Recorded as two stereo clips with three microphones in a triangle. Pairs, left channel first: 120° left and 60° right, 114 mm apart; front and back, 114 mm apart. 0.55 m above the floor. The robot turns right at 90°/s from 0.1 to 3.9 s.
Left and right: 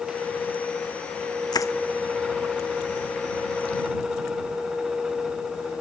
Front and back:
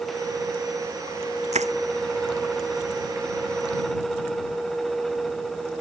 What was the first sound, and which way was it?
Crushing, 170° left.